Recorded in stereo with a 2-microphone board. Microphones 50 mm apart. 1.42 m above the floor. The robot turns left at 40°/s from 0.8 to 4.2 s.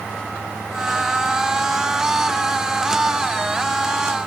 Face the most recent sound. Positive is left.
No sound to turn to.